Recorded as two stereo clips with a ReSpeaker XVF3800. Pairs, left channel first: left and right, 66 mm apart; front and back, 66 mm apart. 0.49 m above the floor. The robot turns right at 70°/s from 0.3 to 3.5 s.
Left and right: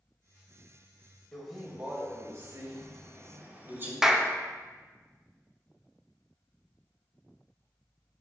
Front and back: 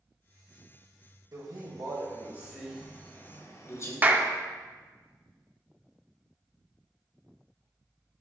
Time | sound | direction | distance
1.3 | a man speaking | 165° left | 1.9 m
4.0 | a clap | 160° right | 0.6 m